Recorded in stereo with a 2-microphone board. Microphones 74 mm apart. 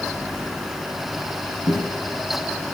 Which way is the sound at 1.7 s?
75° right (ahead or behind).